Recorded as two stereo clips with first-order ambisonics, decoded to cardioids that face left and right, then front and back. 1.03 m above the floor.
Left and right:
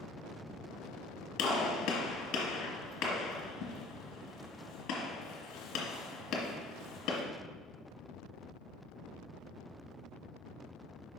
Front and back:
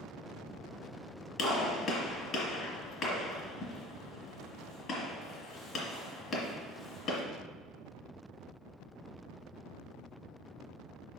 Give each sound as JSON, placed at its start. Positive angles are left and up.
{"t": 1.4, "sound": "a gunshot", "azimuth_deg": 55, "distance_m": 1.8}